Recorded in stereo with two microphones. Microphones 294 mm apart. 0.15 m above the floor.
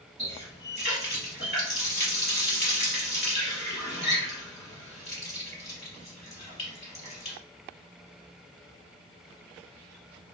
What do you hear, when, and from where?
0.2 s a running tap: 40° left (ahead or behind), 1.7 m